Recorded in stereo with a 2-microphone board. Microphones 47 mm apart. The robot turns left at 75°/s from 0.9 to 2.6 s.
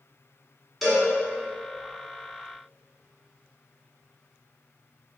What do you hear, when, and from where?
0.8 s a cowbell: 5° left (ahead or behind), 1.6 m; by 1.1 s centre (ahead or behind), 1.6 m